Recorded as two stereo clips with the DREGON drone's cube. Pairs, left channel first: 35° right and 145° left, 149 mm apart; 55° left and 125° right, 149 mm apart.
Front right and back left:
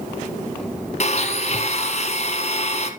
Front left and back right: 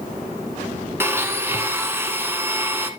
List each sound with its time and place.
1.0 s a blender: 55° right, 1.5 m